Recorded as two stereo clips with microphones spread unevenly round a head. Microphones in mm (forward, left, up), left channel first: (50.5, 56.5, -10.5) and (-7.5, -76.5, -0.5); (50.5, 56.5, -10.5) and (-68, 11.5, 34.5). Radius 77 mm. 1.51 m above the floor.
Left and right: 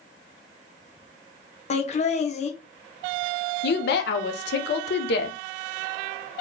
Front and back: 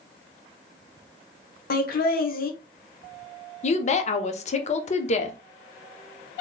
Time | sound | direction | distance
1.7 | laughter | 20° left | 1.0 m
3.6 | a woman speaking | 55° left | 0.7 m